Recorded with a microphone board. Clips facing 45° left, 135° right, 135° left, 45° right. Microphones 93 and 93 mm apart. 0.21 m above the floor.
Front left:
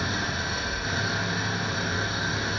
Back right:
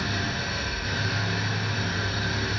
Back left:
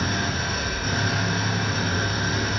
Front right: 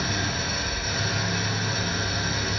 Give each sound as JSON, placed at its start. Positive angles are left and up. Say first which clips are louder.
{"t": 0.0, "sound": "an engine running", "louder": "even, back left 2 dB", "azimuth_deg": 110, "distance_m": 1.9}